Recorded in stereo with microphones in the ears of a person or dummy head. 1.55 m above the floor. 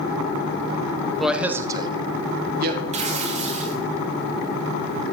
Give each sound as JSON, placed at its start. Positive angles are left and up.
{"t": 1.2, "sound": "a man speaking", "side_deg": 0, "distance_m": 0.8}
{"t": 2.9, "sound": "tearing paper", "side_deg": -35, "distance_m": 0.9}